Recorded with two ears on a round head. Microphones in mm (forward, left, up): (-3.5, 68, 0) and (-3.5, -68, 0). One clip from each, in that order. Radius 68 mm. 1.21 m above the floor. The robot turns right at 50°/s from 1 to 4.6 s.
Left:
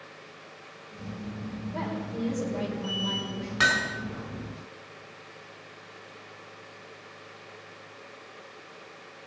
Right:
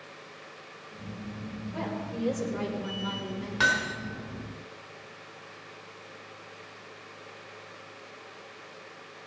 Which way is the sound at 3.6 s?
5° left (ahead or behind).